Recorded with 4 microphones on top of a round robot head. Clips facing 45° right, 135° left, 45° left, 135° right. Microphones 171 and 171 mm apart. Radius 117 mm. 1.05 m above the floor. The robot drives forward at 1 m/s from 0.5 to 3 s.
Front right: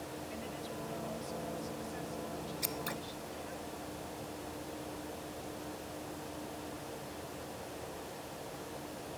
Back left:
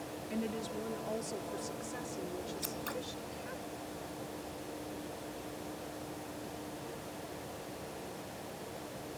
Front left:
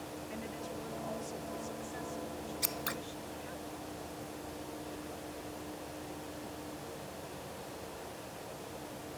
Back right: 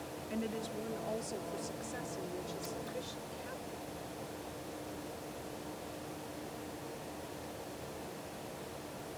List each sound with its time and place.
0.3 s a woman speaking: 170° left; by 3.6 s 175° left
2.6 s scissors: 35° left; by 3.0 s 45° left